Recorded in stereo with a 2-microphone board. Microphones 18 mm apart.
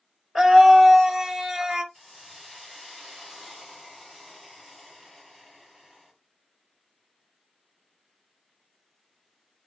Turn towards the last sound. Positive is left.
turn(degrees=0)  # may be behind; listen again after turning